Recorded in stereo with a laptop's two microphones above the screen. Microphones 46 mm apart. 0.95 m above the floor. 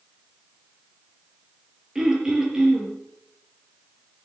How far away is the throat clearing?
About 6.5 m.